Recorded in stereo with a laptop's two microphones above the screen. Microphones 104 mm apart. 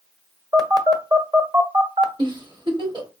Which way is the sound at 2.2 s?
45° right (ahead or behind).